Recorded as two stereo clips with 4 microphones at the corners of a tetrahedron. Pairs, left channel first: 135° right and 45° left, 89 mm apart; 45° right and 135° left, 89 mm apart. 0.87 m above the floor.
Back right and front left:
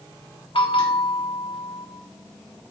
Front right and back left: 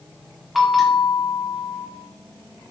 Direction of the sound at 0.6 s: 135° right.